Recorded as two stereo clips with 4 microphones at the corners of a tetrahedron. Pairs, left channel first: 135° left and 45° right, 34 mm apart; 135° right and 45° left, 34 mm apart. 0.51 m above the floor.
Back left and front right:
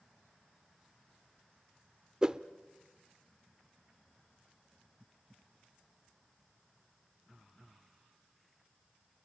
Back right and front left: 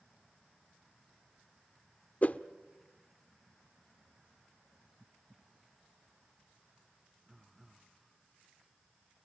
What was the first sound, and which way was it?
A whoosh, 105° right.